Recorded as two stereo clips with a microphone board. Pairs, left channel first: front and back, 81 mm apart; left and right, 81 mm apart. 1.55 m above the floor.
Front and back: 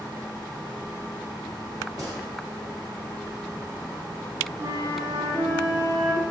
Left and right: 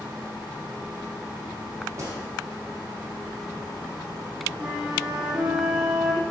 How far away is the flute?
About 1.5 m.